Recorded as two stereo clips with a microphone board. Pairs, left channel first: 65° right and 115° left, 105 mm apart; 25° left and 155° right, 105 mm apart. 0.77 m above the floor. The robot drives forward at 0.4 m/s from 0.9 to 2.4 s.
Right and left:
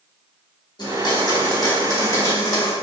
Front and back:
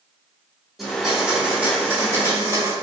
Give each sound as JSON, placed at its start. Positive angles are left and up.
{"t": 0.8, "sound": "a blender", "azimuth_deg": -70, "distance_m": 1.3}